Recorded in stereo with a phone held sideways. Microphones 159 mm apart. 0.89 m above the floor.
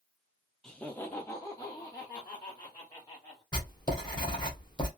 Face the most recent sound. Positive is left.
turn(degrees=25)  # may be behind; listen again after turning